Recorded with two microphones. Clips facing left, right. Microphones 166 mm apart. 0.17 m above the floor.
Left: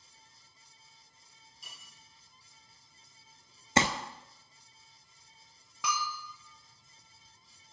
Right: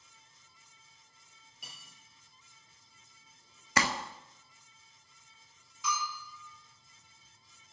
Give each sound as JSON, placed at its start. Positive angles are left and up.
{"t": 1.6, "sound": "cutlery clinking", "side_deg": -70, "distance_m": 2.5}
{"t": 3.8, "sound": "crumpling", "side_deg": 25, "distance_m": 0.6}
{"t": 5.8, "sound": "a bell", "side_deg": 75, "distance_m": 1.0}